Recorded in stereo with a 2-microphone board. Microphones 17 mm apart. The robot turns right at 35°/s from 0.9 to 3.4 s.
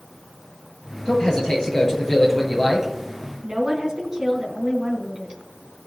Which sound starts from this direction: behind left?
A man speaking, at 1.1 s.